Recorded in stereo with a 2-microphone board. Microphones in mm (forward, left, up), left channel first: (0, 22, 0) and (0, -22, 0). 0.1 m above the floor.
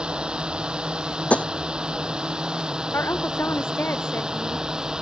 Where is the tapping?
30° left (ahead or behind).